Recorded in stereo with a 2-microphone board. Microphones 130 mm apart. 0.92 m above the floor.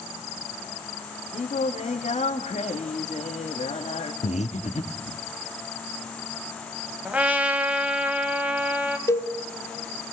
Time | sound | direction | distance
1.3 | singing | 60° left (ahead or behind) | 2 m
4.2 | breathing | 60° left (ahead or behind) | 1.1 m
7.0 | a trumpet | 10° right (ahead or behind) | 1.6 m
9.1 | a cowbell | 25° left (ahead or behind) | 0.9 m